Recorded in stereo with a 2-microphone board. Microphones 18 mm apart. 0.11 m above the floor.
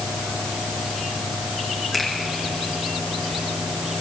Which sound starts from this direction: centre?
A finger snap, at 1.9 s.